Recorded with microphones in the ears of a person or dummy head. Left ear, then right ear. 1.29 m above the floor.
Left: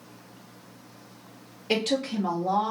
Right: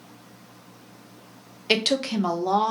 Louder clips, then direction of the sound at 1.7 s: Right 4 dB; 40° right (ahead or behind).